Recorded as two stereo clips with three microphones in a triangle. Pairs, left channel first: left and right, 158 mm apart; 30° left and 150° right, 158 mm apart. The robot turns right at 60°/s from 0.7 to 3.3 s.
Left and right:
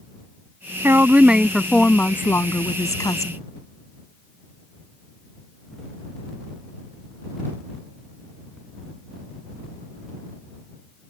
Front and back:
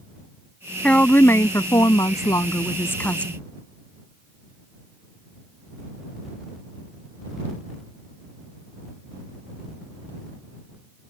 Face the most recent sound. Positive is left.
turn(degrees=105)